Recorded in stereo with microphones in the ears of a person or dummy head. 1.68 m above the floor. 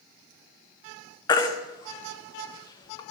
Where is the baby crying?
25° left (ahead or behind), 0.7 m.